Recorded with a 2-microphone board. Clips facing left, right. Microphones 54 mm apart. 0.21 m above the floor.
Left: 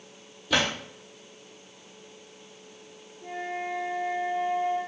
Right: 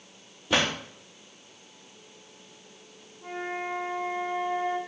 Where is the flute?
40° right (ahead or behind), 1.2 m.